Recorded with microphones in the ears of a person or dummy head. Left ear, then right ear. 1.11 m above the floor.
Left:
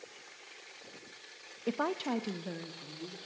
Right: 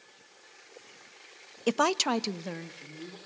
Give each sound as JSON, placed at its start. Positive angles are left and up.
{"t": 1.7, "sound": "a woman speaking", "side_deg": -75, "distance_m": 0.6}